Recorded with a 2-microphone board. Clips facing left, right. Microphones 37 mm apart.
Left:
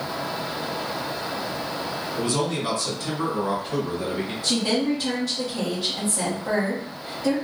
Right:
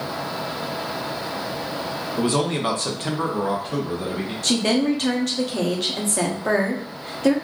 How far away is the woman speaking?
About 1.1 m.